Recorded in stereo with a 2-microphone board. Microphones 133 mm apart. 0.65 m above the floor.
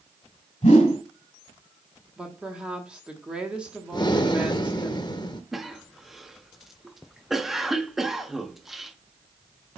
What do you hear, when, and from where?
0.6 s a whoosh: 70° left (ahead or behind), 1.9 m
2.2 s a woman speaking: 5° right (ahead or behind), 1.1 m
3.9 s breathing: 35° left (ahead or behind), 0.6 m
5.5 s a cough: centre (ahead or behind), 0.7 m